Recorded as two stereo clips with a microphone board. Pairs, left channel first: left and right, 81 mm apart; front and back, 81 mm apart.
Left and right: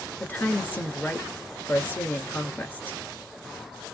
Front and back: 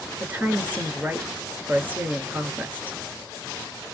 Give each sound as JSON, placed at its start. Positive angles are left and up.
{"t": 0.2, "sound": "a woman speaking", "azimuth_deg": 130, "distance_m": 1.5}